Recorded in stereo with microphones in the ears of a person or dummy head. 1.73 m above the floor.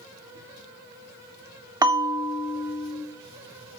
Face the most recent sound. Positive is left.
turn(degrees=-15)  # may be behind; listen again after turning